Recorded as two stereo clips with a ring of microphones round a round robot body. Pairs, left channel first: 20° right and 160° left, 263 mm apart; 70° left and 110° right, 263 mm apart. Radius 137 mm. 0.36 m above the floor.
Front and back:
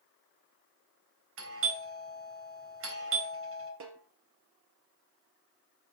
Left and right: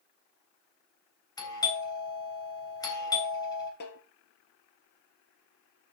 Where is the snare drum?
120° left, 3 m.